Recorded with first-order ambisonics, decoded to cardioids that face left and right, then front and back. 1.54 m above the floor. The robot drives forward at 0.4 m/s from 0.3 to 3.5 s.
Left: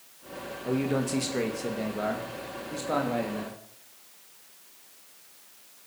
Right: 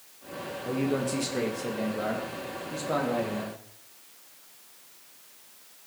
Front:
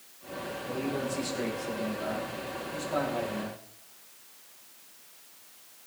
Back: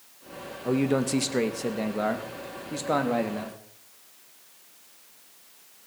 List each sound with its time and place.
0.7 s a man speaking: 170° left, 2 m; by 3.6 s 175° left, 3 m